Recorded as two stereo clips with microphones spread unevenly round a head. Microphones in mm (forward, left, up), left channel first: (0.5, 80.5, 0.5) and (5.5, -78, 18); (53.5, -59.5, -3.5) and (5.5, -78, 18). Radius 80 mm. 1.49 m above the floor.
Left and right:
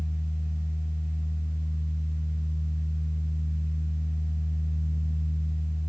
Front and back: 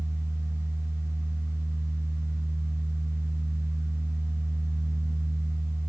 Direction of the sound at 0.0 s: 130° right.